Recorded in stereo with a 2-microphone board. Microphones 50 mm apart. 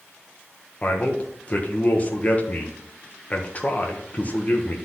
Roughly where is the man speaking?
Left.